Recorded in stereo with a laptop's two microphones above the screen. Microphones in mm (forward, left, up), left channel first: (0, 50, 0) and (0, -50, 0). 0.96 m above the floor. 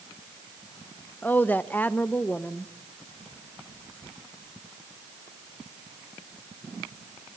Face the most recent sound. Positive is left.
turn(degrees=15)  # may be behind; listen again after turning